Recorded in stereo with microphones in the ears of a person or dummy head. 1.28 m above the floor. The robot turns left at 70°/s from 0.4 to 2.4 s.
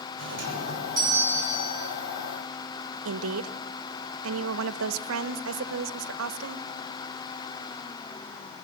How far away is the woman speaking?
About 1.1 m.